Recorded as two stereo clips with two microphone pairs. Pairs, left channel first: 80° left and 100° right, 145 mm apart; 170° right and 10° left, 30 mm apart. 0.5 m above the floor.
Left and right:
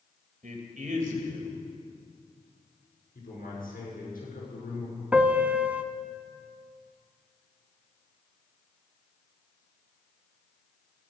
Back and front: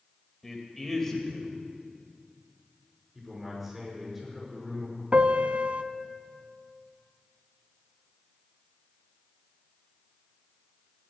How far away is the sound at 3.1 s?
About 6.5 m.